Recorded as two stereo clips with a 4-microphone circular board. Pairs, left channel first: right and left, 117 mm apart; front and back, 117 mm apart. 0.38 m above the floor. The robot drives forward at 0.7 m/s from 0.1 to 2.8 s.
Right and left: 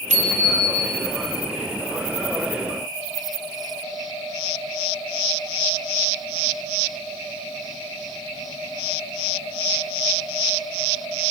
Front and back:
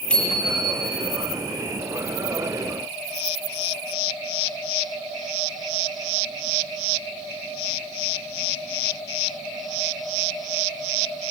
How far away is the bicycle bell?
About 7 m.